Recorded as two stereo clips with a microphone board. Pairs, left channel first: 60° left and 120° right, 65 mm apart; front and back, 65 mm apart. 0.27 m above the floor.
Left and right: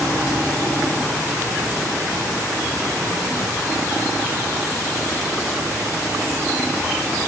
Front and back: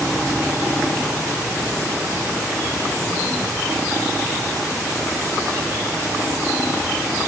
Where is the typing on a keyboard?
I don't hear typing on a keyboard.